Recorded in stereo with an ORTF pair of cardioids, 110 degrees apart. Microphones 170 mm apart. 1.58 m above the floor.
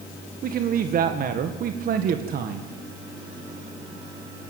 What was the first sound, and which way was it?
A man speaking, 55° right.